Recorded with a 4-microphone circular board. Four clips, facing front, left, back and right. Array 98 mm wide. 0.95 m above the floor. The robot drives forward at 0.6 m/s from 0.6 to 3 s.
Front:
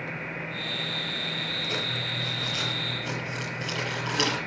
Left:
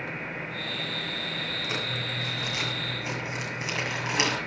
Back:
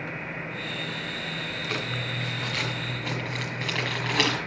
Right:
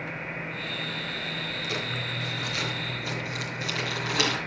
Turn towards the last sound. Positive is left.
turn(degrees=155)